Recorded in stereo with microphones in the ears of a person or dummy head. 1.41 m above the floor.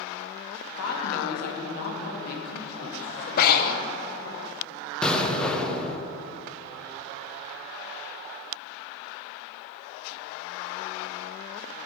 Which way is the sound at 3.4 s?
55° left (ahead or behind).